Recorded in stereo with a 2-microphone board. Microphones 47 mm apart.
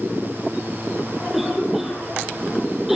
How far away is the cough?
About 4 m.